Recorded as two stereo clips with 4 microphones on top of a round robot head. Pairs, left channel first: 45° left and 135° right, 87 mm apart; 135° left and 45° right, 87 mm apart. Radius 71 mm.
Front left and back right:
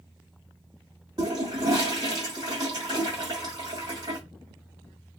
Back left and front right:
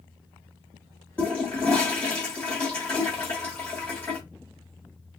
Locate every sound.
1.2 s a toilet flushing: 160° right, 1.2 m